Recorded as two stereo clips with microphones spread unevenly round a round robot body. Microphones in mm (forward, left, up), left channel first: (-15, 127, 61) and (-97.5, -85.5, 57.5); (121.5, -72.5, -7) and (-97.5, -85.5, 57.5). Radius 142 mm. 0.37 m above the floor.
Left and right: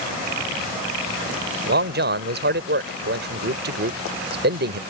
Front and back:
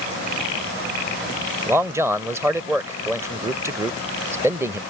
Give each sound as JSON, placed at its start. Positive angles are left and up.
{"t": 1.7, "sound": "a man speaking", "azimuth_deg": -85}